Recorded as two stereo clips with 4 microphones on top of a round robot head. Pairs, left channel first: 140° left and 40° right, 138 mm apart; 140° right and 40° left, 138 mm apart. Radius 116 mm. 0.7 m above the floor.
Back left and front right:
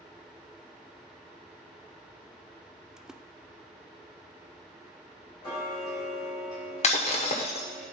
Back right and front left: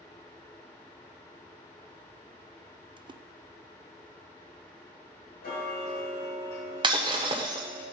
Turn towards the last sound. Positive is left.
turn(degrees=95)